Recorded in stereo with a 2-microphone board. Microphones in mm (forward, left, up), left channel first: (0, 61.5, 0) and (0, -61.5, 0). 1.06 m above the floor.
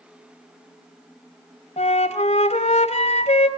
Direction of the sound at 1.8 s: 60° left (ahead or behind).